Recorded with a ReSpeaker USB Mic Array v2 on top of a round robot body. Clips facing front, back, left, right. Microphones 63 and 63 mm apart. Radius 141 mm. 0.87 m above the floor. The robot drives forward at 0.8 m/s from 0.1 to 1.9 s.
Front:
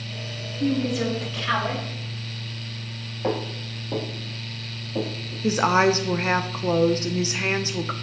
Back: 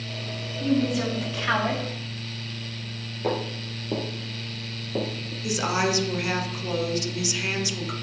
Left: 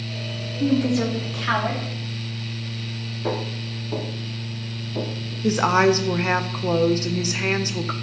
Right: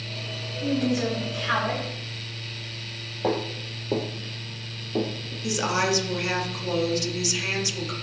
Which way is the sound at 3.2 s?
75° right.